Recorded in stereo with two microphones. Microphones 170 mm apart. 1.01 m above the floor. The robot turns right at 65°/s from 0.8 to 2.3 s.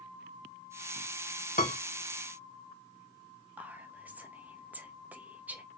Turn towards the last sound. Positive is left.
turn(degrees=-10)  # may be behind; listen again after turning